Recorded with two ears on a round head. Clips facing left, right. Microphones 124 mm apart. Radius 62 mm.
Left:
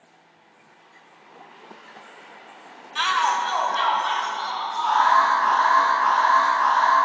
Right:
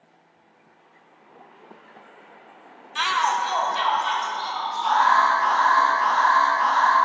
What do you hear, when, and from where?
3.0 s a shout: centre (ahead or behind), 0.6 m; by 5.2 s 25° right (ahead or behind), 3 m
4.8 s an alarm: 50° right (ahead or behind), 2.5 m